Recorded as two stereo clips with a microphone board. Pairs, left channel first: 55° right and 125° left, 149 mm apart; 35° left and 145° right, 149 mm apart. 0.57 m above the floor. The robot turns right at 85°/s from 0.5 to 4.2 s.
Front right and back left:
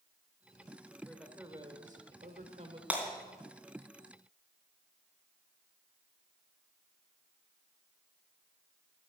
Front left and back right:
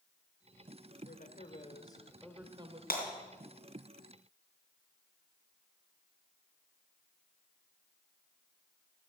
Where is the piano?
No piano in this recording.